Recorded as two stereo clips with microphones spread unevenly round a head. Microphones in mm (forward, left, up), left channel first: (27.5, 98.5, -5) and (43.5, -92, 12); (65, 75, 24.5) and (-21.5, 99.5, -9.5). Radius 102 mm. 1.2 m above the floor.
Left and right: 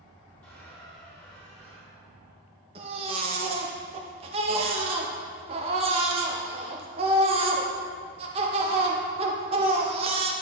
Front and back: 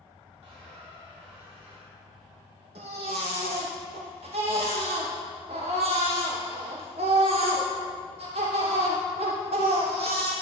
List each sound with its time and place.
0.4 s a squeak: 175° left, 3 m
2.8 s a baby crying: 150° right, 0.6 m